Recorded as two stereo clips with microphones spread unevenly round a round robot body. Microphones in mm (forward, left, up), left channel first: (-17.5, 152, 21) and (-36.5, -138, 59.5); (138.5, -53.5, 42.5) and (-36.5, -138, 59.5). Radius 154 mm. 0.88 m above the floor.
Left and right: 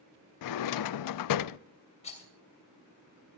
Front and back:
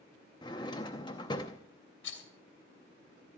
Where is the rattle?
15° left, 2.5 m.